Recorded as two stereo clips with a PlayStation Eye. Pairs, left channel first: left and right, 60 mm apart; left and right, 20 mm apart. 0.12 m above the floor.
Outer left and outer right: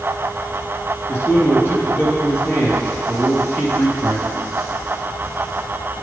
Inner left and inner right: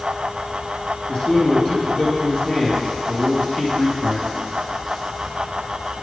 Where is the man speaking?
45° left (ahead or behind), 2.5 m.